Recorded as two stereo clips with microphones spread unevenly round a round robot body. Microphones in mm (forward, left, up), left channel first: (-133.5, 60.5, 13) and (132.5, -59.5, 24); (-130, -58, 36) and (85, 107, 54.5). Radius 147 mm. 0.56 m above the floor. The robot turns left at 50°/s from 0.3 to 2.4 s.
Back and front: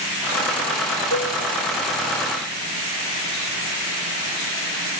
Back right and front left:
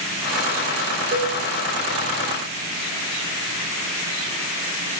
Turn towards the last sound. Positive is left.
turn(degrees=-90)